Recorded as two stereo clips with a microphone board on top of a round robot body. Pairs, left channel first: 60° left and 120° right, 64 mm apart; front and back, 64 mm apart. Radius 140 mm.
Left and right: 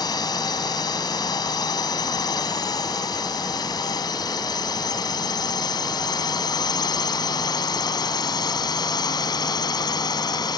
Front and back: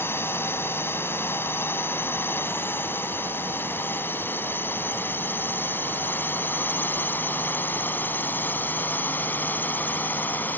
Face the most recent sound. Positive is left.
turn(degrees=60)